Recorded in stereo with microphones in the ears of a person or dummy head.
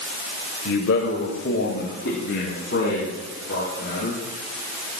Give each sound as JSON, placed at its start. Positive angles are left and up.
{"t": 0.7, "sound": "a man speaking", "side_deg": 75, "distance_m": 1.3}